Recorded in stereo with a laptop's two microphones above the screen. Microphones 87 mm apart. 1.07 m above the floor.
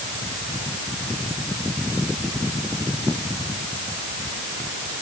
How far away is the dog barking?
I don't hear a dog barking.